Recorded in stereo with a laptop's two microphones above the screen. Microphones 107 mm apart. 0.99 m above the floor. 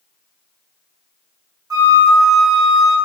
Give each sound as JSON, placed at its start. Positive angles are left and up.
{"t": 1.7, "sound": "a flute", "side_deg": -35, "distance_m": 1.1}